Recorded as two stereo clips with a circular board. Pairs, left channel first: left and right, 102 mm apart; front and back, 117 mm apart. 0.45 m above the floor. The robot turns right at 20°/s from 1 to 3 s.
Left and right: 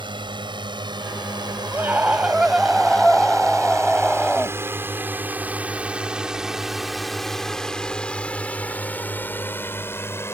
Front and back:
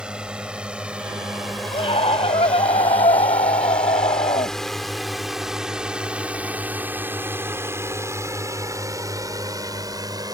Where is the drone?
100° right; by 10.3 s 140° left.